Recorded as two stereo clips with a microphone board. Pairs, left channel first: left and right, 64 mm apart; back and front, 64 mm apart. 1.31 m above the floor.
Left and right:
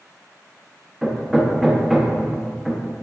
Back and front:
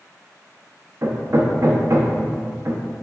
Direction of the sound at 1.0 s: 5° right.